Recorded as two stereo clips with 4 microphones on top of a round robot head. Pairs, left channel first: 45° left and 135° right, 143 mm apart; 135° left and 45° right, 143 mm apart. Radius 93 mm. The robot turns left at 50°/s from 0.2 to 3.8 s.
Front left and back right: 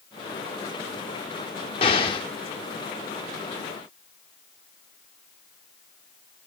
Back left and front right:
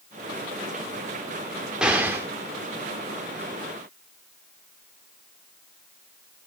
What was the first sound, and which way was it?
An explosion, 35° left.